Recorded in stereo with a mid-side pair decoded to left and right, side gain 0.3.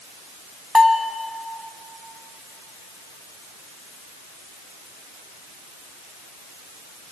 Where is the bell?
25° left, 2 m.